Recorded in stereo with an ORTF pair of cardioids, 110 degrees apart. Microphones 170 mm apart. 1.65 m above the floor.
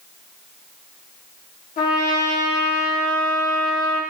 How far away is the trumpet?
About 1.1 m.